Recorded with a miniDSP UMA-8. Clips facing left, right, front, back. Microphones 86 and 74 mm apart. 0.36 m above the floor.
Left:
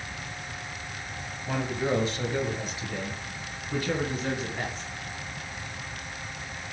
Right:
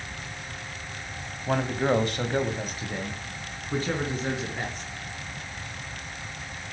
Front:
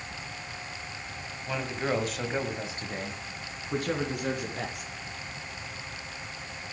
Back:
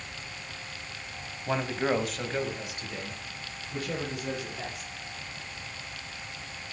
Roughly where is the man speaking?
Behind right.